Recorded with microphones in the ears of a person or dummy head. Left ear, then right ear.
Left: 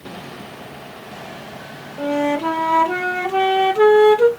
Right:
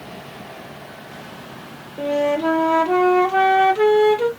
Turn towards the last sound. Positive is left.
turn(degrees=-5)  # may be behind; listen again after turning